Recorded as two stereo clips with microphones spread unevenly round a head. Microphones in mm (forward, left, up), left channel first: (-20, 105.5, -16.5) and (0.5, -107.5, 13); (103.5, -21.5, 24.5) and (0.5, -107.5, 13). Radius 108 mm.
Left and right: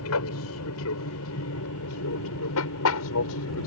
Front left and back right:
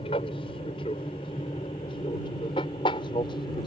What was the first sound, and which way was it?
An aircraft, 105° left.